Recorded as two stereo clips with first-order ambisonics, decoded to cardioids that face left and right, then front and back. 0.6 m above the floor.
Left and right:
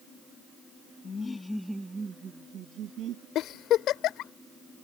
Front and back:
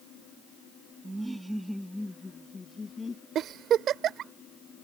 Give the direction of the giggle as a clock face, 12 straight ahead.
8 o'clock.